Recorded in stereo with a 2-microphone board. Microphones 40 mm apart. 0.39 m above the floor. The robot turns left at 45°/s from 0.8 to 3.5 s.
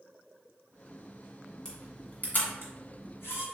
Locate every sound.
1.6 s a camera shutter: 10° left (ahead or behind), 1.6 m; by 3.5 s 80° left, 1.6 m